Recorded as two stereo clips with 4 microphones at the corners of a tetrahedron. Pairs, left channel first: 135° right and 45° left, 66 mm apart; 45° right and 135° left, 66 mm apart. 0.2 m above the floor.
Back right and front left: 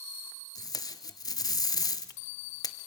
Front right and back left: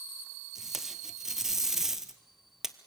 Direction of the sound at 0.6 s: 140° right.